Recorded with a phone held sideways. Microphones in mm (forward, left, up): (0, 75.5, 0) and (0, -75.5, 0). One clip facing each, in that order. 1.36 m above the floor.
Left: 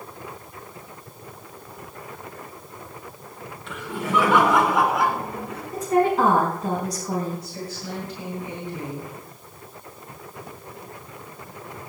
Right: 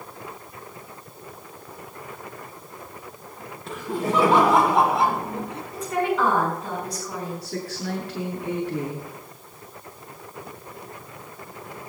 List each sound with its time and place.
3.7 s laughter: 40° right (ahead or behind), 4 m; by 5.6 s 25° right (ahead or behind), 3.5 m
5.7 s a woman speaking: 40° left (ahead or behind), 5 m
7.4 s a woman speaking: 80° right, 8 m